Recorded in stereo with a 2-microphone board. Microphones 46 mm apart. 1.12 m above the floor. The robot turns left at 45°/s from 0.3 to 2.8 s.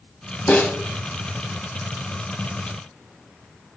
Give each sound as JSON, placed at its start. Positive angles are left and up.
{"t": 0.5, "sound": "a snare drum", "side_deg": 30, "distance_m": 4.0}